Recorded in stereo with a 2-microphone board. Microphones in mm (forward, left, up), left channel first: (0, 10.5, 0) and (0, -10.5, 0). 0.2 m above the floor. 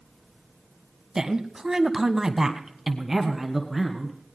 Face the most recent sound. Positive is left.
turn(degrees=0)  # may be behind; listen again after turning